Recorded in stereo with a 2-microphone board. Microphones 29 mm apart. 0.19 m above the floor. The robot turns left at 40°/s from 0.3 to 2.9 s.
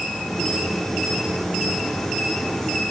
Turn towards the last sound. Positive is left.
No sound to turn to.